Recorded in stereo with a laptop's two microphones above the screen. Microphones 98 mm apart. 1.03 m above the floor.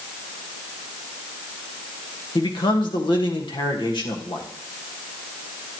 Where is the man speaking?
55° left (ahead or behind), 1.5 m.